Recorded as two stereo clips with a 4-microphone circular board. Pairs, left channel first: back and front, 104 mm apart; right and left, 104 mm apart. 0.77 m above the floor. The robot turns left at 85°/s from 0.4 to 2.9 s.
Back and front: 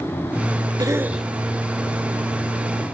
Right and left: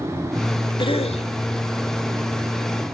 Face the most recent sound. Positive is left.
turn(degrees=130)